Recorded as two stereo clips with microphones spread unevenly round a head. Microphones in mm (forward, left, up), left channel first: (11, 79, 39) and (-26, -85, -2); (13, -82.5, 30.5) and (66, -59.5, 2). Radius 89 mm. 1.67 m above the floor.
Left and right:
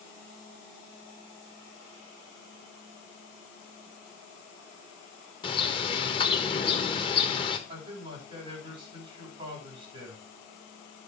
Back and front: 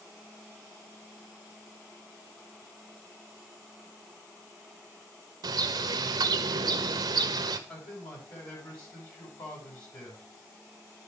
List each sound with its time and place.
5.4 s a bird: 35° left, 1.1 m
7.7 s a man speaking: 165° right, 8 m